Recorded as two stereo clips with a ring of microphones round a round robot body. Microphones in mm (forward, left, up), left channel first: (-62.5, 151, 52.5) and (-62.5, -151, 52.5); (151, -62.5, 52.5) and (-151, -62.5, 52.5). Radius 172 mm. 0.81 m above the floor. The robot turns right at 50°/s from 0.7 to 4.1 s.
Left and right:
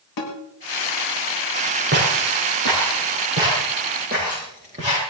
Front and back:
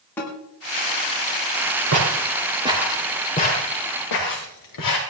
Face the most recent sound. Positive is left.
turn(degrees=-15)